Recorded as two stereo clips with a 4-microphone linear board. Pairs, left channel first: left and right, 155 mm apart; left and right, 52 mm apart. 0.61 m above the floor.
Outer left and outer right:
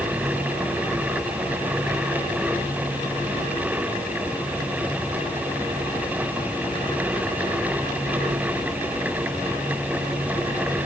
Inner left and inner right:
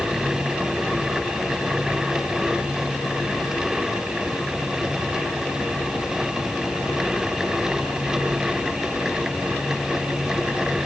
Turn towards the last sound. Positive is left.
No sound to turn to.